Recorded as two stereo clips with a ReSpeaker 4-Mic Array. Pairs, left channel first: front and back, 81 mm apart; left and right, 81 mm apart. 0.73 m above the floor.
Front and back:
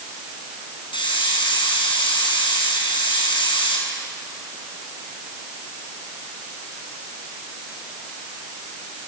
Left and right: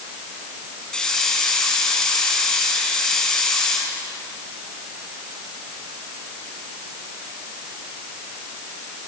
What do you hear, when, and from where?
0.9 s a hiss: 10° left, 7 m